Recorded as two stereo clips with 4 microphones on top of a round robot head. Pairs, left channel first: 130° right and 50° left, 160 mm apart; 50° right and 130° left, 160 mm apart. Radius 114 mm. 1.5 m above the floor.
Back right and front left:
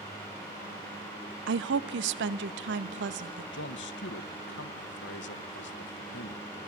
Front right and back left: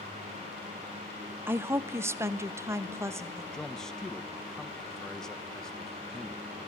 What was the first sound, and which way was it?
A woman speaking, 50° left.